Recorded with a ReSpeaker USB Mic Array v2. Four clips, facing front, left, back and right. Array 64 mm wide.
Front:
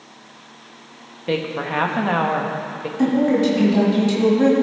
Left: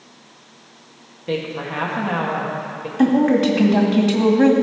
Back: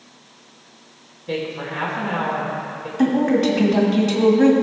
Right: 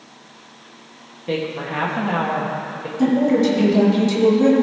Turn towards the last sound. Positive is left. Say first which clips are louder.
# left 1 dB, even
turn(degrees=105)